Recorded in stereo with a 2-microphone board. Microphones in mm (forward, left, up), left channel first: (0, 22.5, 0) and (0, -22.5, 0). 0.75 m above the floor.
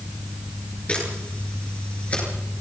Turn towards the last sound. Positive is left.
turn(degrees=30)  # may be behind; listen again after turning